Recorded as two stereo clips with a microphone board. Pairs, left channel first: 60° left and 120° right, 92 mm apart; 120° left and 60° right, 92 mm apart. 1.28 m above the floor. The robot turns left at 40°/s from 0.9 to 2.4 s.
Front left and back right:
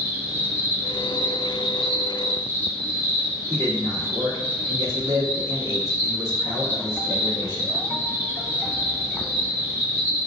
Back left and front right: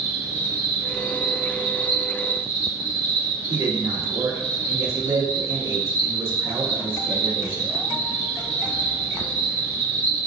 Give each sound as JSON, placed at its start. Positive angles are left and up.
{"t": 0.0, "sound": "an insect", "azimuth_deg": 180, "distance_m": 1.8}
{"t": 3.5, "sound": "a man speaking", "azimuth_deg": -75, "distance_m": 1.5}